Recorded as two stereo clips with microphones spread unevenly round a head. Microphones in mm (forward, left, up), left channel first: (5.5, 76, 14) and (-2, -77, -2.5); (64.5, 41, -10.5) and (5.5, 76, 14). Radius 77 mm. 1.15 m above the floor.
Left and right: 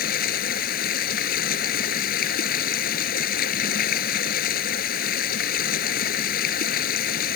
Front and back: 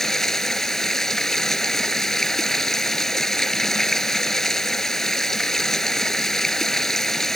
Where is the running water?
55° left.